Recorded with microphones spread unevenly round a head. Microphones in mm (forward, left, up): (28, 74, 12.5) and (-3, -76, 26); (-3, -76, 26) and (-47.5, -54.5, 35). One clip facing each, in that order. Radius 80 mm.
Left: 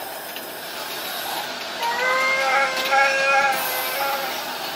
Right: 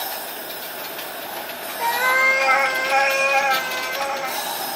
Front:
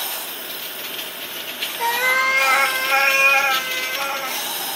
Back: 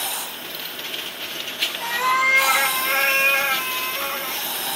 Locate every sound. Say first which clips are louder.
1.8 s a cat meowing: right 1 dB, front 2 dB; 40° right, 1.1 m